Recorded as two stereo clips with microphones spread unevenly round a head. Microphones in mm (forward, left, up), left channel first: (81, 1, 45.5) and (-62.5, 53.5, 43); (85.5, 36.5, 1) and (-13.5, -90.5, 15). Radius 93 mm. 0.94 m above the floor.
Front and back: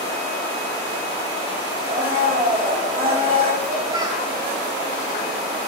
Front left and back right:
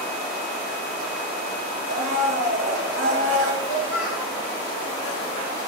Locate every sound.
1.9 s a blender: 140° right, 2.5 m
3.6 s a child speaking: 100° left, 4 m